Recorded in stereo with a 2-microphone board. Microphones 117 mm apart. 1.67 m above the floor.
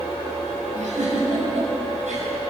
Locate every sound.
0.7 s a giggle: 85° right, 7 m